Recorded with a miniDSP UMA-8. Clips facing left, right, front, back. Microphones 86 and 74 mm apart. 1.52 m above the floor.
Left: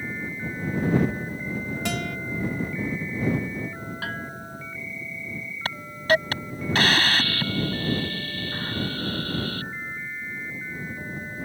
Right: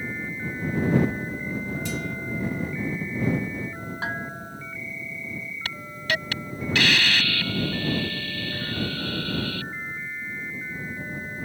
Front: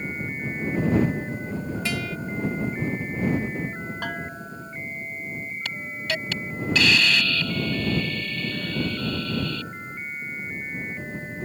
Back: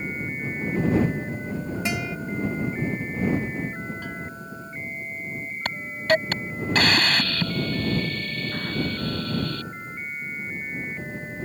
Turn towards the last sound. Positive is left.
turn(degrees=140)